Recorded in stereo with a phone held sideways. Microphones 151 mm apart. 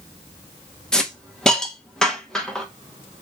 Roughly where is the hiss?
Centre.